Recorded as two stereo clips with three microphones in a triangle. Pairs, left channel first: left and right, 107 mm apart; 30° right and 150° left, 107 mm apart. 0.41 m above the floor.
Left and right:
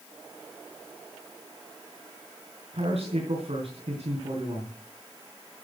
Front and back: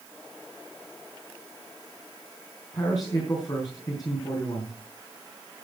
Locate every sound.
2.7 s a man speaking: 85° right, 4.5 m